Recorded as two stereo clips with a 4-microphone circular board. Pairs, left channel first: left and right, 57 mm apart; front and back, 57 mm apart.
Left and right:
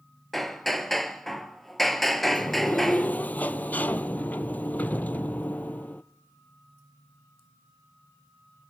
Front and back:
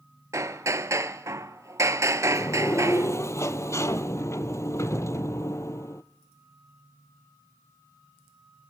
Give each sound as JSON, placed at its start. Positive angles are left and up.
{"t": 0.3, "sound": "hammering", "azimuth_deg": 175, "distance_m": 0.9}
{"t": 2.2, "sound": "a sliding door", "azimuth_deg": 30, "distance_m": 0.6}